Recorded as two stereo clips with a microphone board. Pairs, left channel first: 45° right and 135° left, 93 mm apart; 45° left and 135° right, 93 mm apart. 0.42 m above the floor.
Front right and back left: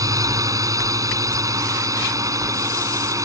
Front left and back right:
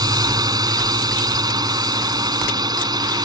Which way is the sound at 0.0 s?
175° right.